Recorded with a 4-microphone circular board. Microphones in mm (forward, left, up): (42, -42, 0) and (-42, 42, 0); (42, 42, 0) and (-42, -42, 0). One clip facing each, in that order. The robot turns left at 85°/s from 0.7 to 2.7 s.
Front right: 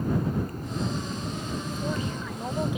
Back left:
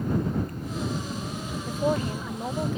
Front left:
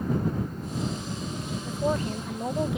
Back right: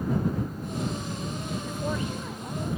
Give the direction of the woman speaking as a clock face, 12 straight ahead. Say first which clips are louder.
Back left 8 dB, front left 6 dB; 8 o'clock.